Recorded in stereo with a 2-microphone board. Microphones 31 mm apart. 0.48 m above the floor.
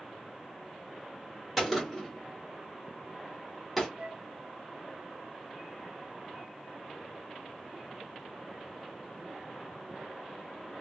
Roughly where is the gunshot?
Centre.